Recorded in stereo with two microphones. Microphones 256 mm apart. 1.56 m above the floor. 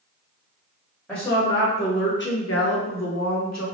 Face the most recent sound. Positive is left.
turn(degrees=80)